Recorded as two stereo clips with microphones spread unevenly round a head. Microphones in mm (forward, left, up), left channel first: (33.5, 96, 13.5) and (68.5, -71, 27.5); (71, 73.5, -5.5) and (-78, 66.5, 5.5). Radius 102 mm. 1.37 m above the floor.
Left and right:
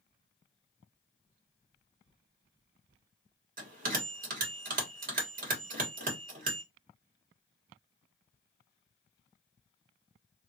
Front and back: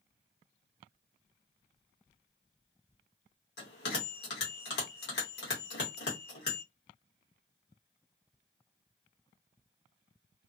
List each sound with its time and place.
3.6 s a bell: 40° right, 1.5 m